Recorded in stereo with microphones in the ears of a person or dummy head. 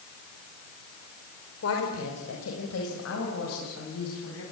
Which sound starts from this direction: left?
A woman speaking, at 1.6 s.